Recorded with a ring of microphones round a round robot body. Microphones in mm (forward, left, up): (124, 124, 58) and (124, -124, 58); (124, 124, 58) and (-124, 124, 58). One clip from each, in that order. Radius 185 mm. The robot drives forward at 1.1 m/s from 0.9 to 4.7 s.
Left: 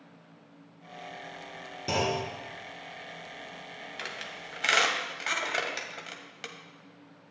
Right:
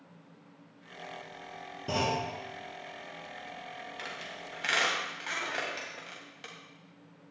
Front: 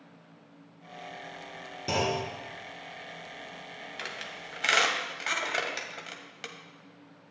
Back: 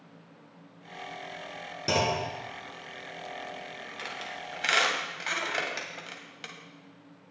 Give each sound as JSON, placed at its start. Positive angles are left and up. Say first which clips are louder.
{"t": 1.9, "sound": "a clunk", "louder": "left 2 dB, back 2 dB", "azimuth_deg": 130, "distance_m": 3.0}
{"t": 4.0, "sound": "a squeak", "louder": "left 4 dB, back 1 dB", "azimuth_deg": 50, "distance_m": 2.5}